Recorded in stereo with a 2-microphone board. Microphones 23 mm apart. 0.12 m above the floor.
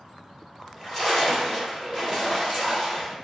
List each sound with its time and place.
0.6 s a splash: 20° left (ahead or behind), 1.6 m